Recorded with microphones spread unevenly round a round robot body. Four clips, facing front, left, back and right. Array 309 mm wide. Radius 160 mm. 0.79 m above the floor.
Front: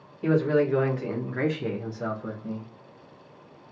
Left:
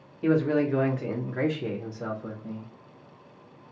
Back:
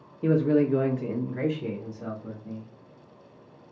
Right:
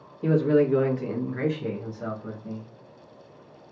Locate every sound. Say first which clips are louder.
0.2 s a man speaking: right 2 dB, even; 160° right, 1.0 m; by 2.7 s 20° left, 1.1 m